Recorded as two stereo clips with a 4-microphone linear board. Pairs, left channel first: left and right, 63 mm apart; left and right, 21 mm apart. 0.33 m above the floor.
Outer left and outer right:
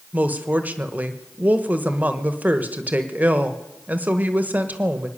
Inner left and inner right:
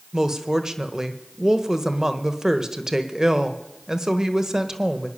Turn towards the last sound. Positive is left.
turn(degrees=-25)  # may be behind; listen again after turning